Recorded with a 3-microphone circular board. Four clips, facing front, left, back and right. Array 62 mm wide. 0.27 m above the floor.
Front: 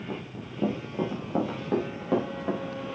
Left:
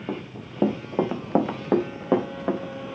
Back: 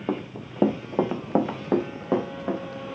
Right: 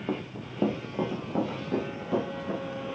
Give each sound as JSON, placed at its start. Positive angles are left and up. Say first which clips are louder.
{"t": 0.1, "sound": "running footsteps", "louder": "even, back 7 dB", "azimuth_deg": 180, "distance_m": 1.5}